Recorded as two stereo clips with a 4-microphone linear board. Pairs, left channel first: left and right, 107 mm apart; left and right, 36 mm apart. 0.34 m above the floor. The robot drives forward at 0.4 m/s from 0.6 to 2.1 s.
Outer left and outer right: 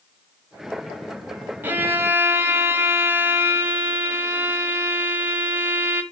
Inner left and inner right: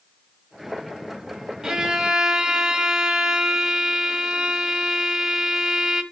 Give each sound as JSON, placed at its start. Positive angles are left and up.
{"t": 1.6, "sound": "a violin", "side_deg": -20, "distance_m": 1.2}